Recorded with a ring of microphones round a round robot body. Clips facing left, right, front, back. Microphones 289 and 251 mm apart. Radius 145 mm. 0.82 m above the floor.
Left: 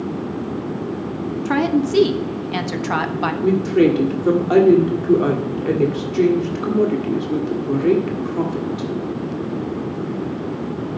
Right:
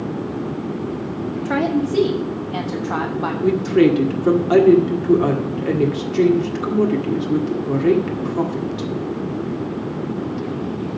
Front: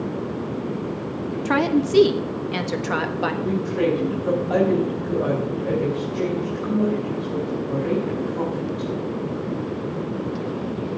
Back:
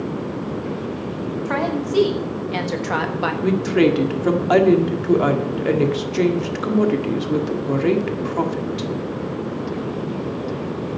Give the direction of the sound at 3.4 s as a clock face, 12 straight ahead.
6 o'clock.